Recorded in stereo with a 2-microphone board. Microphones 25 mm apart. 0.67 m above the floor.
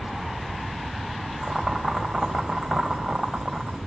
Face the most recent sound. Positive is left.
turn(degrees=-20)  # may be behind; listen again after turning